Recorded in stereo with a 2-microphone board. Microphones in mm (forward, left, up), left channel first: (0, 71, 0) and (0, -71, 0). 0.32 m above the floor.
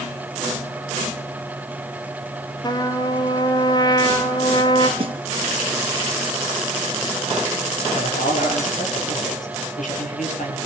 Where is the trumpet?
30° left (ahead or behind), 1.6 m.